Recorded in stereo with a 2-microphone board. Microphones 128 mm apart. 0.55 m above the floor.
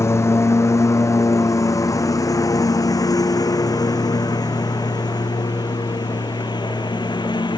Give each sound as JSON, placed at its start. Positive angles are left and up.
{"t": 0.0, "sound": "a lawn mower", "side_deg": 20}